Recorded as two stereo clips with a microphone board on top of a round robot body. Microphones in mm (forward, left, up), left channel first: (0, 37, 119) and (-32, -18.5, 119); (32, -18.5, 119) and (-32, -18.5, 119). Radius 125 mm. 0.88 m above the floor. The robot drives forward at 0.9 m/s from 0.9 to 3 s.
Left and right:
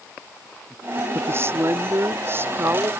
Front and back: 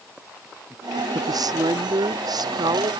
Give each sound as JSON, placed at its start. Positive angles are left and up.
{"t": 1.1, "sound": "a woman speaking", "azimuth_deg": -170}